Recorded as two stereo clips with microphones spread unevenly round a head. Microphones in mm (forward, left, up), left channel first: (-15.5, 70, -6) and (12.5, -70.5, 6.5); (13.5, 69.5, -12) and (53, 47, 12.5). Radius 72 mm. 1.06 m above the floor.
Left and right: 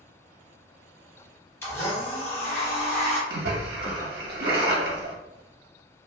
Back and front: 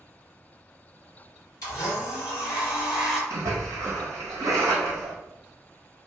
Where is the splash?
60° right, 1.0 m.